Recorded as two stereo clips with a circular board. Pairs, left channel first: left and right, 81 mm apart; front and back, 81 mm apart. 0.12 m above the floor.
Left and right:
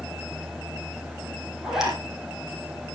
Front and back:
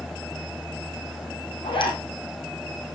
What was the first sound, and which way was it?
A zipper, 5° right.